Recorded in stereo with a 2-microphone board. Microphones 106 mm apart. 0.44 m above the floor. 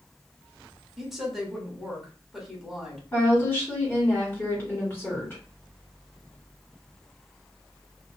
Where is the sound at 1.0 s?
5° right (ahead or behind), 1.0 m.